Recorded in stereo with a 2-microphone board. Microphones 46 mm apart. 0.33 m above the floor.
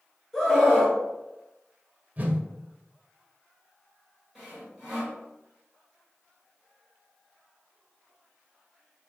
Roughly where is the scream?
Centre.